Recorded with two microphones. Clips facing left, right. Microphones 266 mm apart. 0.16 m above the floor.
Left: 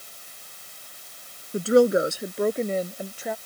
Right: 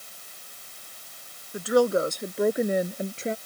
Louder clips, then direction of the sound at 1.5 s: Left 4 dB; 35° left (ahead or behind).